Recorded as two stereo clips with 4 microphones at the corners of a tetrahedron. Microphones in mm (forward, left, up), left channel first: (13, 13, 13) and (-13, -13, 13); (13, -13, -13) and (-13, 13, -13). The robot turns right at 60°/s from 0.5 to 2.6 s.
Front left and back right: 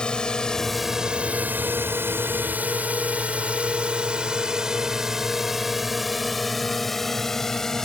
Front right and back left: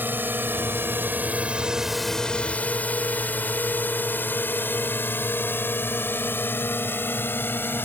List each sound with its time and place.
0.0 s a drone: 115° left; by 7.9 s 30° right